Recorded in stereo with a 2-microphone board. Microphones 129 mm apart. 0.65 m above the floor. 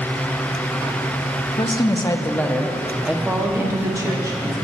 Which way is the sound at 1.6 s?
40° left (ahead or behind).